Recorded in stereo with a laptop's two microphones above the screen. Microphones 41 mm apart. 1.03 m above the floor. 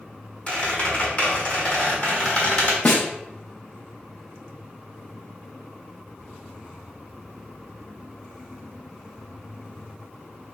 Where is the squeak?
35° left (ahead or behind), 1.2 m.